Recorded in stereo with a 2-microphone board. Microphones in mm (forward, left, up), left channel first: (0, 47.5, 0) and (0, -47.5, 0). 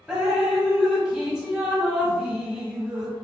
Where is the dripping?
10° right (ahead or behind), 0.8 m.